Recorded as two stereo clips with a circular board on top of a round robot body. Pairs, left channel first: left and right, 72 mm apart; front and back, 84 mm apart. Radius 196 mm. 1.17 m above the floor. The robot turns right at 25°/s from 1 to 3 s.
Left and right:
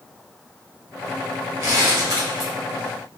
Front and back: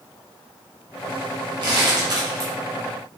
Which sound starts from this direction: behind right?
Crumpling, at 1.6 s.